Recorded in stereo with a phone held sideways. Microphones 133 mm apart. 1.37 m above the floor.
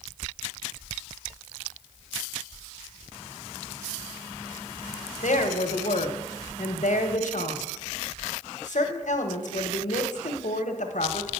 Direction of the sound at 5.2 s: 70° left (ahead or behind).